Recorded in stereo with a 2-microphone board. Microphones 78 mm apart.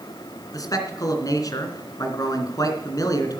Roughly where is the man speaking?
Left.